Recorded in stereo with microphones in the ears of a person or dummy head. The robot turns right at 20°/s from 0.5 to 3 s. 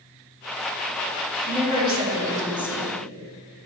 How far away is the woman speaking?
About 2.5 m.